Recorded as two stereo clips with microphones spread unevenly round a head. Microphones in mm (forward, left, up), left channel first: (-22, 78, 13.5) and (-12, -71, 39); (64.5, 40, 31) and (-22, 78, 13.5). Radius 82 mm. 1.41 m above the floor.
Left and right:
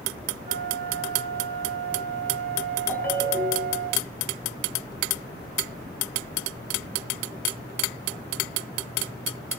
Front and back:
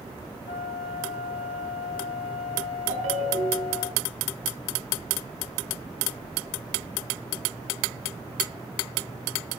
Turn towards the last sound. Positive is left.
turn(degrees=175)